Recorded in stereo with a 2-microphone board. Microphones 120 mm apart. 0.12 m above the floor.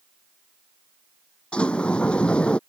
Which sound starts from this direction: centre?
A sliding door, at 1.5 s.